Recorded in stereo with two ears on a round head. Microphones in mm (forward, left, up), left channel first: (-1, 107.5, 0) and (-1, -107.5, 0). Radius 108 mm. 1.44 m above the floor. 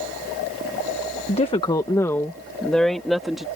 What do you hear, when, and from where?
1.3 s a woman speaking: 30° left (ahead or behind); by 3.5 s centre (ahead or behind)